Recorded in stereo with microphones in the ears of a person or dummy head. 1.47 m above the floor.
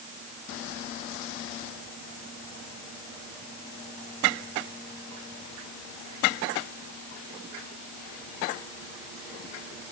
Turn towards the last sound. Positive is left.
No sound to turn to.